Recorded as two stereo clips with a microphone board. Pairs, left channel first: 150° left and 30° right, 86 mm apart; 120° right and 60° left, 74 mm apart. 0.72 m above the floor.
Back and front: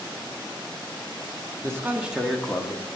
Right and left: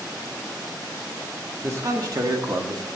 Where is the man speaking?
20° left, 1.4 m; by 3.0 s 90° left, 1.9 m.